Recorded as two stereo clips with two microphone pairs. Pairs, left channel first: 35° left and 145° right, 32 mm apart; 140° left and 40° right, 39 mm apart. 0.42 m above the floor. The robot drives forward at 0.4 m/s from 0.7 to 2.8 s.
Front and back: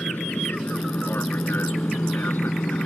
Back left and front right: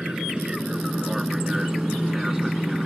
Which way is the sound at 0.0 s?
35° left.